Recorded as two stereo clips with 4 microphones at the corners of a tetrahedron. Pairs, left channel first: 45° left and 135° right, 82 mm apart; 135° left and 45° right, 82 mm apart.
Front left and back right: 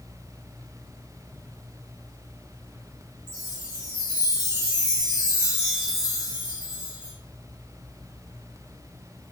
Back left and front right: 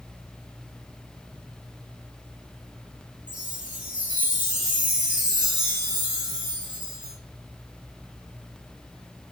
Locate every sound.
3.3 s a chime: 115° right, 1.2 m